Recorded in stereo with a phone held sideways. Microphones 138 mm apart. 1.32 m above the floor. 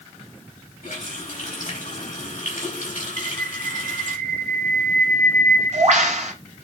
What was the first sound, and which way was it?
A running tap, 60° left (ahead or behind).